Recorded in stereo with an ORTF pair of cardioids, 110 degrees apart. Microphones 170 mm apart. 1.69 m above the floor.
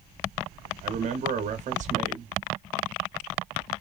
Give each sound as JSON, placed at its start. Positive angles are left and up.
{"t": 0.8, "sound": "a man speaking", "azimuth_deg": -45, "distance_m": 0.8}